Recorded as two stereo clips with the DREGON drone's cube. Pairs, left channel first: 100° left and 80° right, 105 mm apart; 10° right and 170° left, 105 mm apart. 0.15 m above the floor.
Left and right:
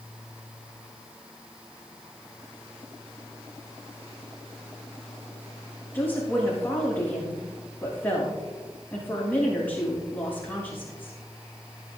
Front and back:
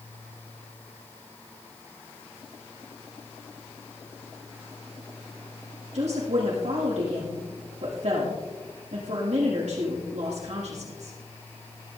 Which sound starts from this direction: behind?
A woman speaking, at 5.9 s.